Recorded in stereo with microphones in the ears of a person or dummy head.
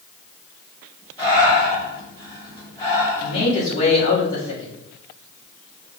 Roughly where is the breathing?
Centre.